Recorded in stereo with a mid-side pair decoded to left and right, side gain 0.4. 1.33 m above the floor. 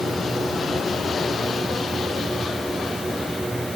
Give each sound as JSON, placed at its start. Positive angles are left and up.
{"t": 0.0, "sound": "a machine running", "azimuth_deg": -15}